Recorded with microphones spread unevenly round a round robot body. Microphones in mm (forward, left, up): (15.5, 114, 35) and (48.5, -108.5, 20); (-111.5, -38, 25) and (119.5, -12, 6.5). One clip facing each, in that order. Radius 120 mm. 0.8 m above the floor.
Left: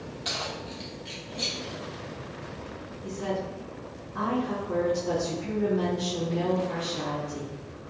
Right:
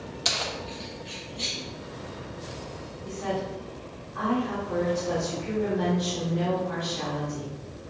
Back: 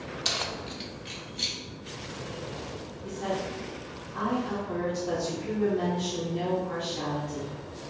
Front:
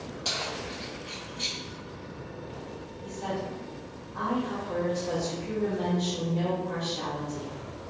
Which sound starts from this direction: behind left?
A woman speaking, at 3.0 s.